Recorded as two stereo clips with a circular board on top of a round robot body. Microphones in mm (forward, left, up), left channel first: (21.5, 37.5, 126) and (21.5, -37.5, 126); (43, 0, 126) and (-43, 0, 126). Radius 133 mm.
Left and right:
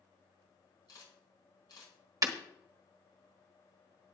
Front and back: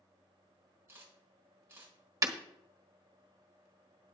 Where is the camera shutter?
120° left, 5 m.